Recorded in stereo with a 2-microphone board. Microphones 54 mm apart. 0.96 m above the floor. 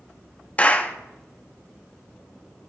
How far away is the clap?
About 1.0 m.